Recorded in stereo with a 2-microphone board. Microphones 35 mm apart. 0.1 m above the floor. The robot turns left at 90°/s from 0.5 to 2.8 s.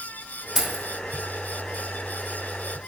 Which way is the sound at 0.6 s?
Centre (ahead or behind).